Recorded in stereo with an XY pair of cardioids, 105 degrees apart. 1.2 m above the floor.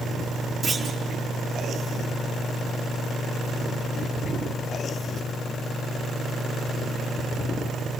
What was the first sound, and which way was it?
A clunk, 40° right.